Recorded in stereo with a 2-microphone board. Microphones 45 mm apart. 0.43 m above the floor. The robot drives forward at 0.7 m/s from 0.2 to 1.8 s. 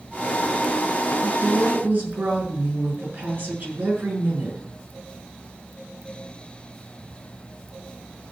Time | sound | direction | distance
1.2 | a woman speaking | 40° right (ahead or behind) | 6.5 m